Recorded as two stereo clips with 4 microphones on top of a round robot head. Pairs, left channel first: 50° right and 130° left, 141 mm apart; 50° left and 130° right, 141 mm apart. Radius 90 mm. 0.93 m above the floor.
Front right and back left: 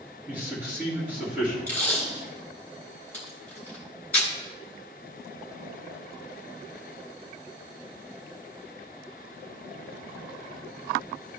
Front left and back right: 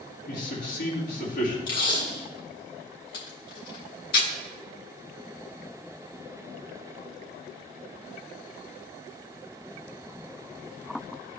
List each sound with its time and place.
0.3 s a man speaking: 50° left, 2.5 m
1.7 s tape being pulled: 30° left, 3 m